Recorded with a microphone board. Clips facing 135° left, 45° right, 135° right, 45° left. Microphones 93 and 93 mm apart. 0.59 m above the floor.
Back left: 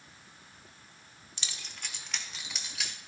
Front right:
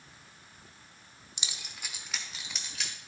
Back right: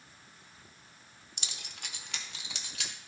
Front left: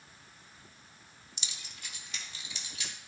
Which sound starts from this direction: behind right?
Keys jangling, at 1.4 s.